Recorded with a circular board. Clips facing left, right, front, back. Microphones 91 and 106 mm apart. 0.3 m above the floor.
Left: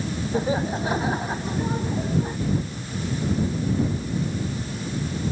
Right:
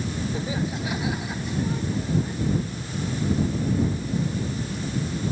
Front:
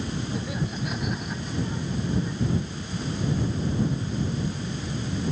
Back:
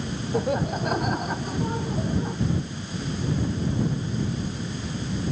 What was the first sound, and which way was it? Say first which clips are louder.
Laughter: left 4 dB, back 6 dB; 140° left.